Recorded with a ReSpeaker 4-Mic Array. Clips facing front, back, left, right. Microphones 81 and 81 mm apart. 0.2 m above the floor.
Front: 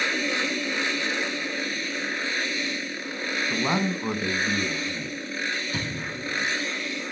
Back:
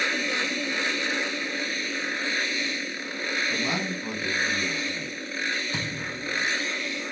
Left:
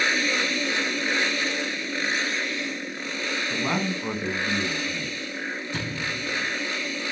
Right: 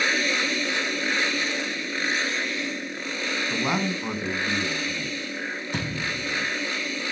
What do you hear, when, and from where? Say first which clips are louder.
3.5 s a man speaking: front 3 dB, right 1 dB; 25° right, 1.9 m; by 5.2 s 10° left, 2.5 m
5.7 s a thud: front 1 dB, right 1 dB; 115° right, 4 m